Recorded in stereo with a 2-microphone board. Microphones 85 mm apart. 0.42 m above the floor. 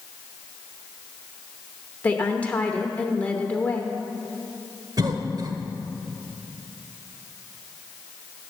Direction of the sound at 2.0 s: 20° left (ahead or behind).